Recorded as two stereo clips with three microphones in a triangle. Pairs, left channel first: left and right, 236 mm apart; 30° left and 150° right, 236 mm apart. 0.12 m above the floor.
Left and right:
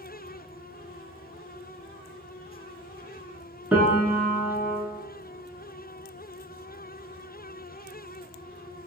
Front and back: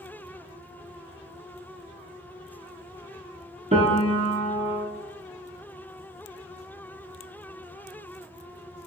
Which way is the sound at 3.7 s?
170° right.